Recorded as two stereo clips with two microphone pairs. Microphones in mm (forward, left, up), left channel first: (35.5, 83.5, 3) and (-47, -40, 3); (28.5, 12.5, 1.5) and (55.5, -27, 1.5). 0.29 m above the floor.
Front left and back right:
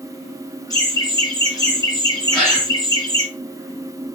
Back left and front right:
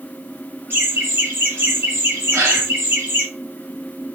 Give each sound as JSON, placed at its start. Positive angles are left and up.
{"t": 0.7, "sound": "laughter", "azimuth_deg": -10, "distance_m": 5.5}
{"t": 2.3, "sound": "a gasp", "azimuth_deg": -30, "distance_m": 5.5}